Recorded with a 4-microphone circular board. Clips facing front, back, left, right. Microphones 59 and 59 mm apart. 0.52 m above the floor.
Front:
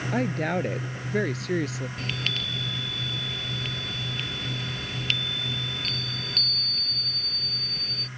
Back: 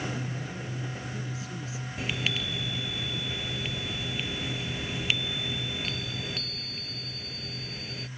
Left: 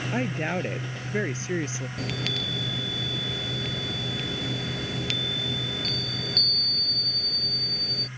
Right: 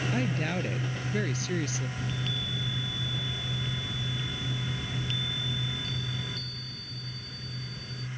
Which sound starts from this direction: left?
A chime, at 2.0 s.